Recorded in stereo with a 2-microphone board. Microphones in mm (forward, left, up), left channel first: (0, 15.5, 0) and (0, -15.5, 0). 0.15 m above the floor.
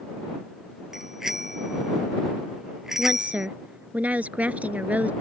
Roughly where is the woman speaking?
Right.